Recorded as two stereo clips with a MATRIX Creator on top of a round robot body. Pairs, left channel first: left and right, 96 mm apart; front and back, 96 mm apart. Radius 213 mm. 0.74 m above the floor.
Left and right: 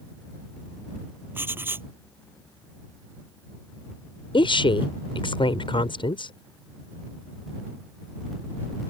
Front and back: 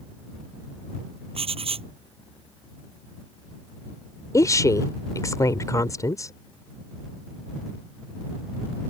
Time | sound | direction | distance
1.4 | writing | 160° right | ?
4.3 | a woman speaking | 60° left | ?